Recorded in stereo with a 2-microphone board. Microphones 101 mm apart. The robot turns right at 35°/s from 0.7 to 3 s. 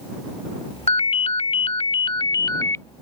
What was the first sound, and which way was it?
A ringtone, 85° left.